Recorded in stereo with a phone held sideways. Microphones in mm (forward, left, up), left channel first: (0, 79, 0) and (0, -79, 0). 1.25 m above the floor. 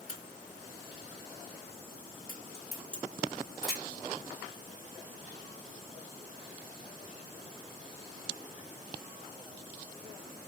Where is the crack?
5° left (ahead or behind), 2 m.